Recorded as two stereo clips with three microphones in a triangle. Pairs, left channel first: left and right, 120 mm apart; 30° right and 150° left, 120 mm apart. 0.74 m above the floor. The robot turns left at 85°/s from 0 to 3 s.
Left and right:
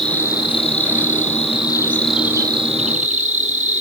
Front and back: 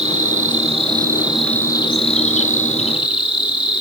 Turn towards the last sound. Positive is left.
turn(degrees=-75)